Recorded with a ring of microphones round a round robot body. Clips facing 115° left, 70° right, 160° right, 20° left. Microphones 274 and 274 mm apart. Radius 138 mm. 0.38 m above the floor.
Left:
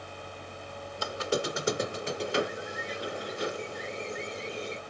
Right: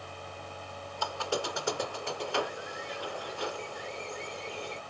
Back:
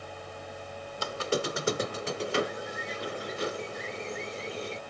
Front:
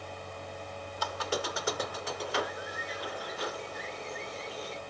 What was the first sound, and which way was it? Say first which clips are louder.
A squeak: left 3 dB, back 5 dB; 165° left.